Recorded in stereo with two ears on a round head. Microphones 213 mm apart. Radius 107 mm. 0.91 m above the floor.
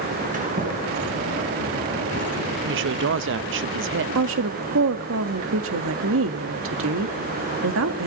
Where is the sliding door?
35° right (ahead or behind), 5.5 m.